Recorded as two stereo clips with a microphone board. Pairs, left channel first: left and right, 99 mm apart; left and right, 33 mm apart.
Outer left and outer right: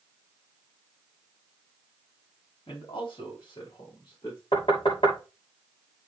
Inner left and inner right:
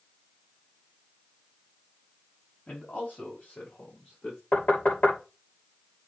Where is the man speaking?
65° left (ahead or behind), 5.5 m; by 4.4 s 50° left (ahead or behind), 7 m.